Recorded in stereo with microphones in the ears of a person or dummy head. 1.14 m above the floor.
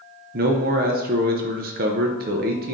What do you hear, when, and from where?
0.3 s a man speaking: 50° right (ahead or behind), 0.6 m